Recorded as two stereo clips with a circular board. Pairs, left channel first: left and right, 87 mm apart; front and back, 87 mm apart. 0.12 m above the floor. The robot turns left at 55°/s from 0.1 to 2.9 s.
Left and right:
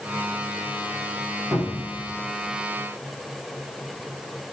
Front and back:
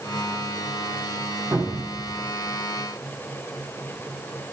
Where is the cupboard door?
140° right, 4.5 m; by 2.0 s 170° right, 4.5 m.